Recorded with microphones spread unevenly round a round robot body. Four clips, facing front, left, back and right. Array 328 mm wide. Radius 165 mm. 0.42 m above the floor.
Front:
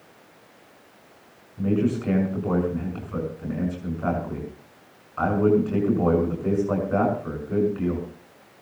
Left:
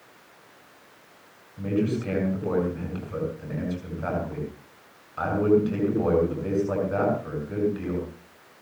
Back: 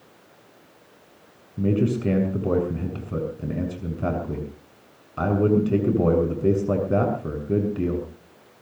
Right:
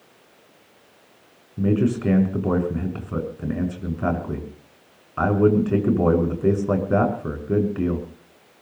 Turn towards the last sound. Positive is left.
turn(degrees=-140)